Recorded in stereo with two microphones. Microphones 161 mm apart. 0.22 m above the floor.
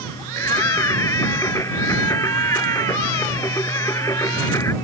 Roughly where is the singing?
Centre.